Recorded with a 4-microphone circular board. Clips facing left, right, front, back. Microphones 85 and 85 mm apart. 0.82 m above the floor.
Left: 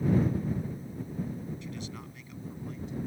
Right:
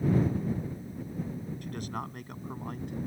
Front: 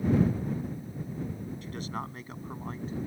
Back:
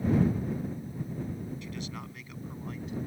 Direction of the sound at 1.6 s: 50° right.